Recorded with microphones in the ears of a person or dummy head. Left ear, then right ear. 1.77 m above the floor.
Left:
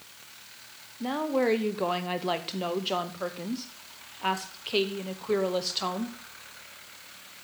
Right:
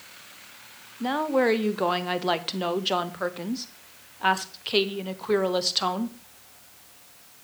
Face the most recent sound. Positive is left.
turn(degrees=-15)  # may be behind; listen again after turning